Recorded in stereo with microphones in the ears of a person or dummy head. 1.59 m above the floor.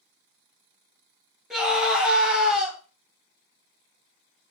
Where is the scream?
Centre (ahead or behind), 0.9 m.